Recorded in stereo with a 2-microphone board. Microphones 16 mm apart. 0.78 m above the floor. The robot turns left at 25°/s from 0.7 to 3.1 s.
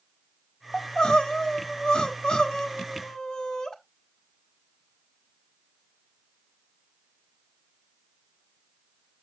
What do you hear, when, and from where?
0.7 s crying: 115° left, 1.2 m; by 3.7 s 55° left, 1.2 m